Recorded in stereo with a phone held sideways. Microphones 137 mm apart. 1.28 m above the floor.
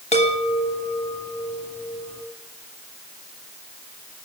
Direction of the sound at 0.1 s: 55° left (ahead or behind).